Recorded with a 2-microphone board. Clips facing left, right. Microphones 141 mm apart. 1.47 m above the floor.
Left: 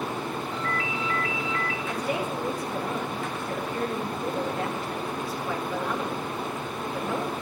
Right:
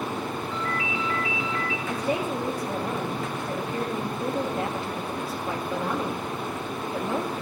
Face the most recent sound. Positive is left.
turn(degrees=-30)  # may be behind; listen again after turning